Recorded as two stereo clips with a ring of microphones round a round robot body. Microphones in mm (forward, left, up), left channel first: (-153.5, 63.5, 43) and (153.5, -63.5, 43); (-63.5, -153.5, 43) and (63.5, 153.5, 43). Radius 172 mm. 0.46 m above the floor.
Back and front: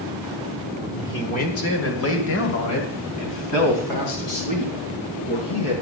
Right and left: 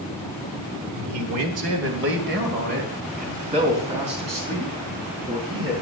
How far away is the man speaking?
About 1.6 m.